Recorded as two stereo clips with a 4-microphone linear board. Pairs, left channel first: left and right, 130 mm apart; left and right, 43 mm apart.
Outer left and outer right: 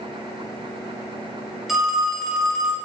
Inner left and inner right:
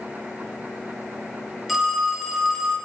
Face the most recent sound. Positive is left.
turn(degrees=0)  # may be behind; listen again after turning